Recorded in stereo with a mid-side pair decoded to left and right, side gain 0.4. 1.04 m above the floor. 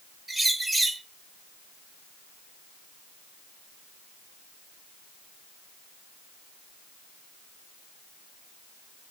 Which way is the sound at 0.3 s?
20° right.